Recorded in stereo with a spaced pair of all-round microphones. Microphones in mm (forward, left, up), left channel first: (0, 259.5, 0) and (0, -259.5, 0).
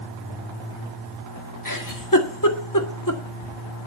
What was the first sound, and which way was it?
A giggle, 40° left (ahead or behind).